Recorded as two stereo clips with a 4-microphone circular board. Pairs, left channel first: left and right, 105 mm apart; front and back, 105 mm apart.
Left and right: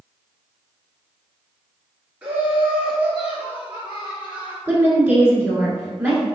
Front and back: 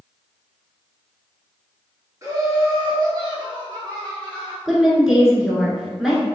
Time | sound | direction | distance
2.2 | laughter | 160° right | 1.4 m
4.7 | a woman speaking | 100° right | 1.2 m